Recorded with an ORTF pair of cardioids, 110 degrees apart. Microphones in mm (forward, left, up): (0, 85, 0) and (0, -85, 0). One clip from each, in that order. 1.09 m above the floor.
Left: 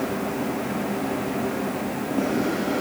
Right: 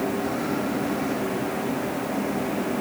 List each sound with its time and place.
Only background noise.